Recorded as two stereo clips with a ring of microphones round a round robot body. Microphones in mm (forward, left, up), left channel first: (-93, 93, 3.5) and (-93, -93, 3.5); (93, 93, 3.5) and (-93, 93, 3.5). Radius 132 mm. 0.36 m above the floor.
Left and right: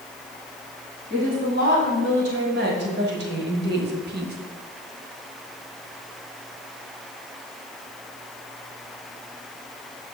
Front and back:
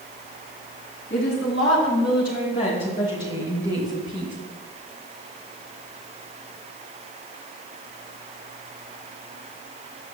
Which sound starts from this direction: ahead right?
A woman speaking, at 1.1 s.